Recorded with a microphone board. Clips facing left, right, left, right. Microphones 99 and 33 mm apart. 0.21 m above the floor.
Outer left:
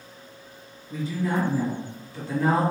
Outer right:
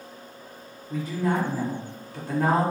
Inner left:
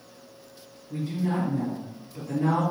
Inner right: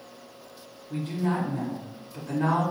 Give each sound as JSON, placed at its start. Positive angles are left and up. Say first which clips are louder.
{"t": 0.9, "sound": "a woman speaking", "louder": "outer right 1 dB, even", "side_deg": -45, "distance_m": 1.5}